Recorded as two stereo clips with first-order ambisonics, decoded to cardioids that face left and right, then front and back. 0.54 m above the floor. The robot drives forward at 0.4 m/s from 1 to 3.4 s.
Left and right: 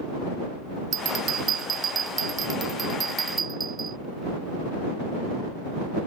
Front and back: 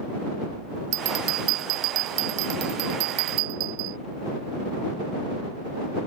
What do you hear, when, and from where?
0.9 s a bell: 145° right; by 4.0 s 160° right